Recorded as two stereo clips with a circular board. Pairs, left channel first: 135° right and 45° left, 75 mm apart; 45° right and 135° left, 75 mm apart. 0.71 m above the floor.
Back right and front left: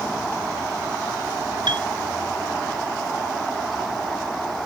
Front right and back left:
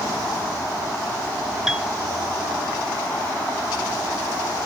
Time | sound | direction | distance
1.7 | a piano | 50° left | ?